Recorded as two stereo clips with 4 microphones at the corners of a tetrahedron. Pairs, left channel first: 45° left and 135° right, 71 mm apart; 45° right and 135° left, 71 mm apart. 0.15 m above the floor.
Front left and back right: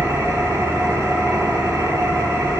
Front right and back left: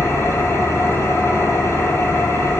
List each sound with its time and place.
0.0 s an engine running: 95° right, 1.8 m